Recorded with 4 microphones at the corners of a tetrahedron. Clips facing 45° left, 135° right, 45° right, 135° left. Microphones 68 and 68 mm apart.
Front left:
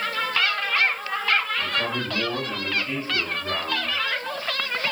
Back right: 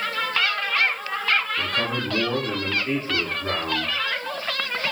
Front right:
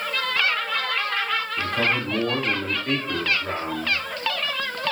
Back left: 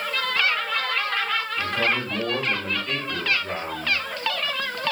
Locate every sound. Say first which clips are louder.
1.6 s a man speaking: back right 1 dB, front right 1 dB; 90° right, 6 m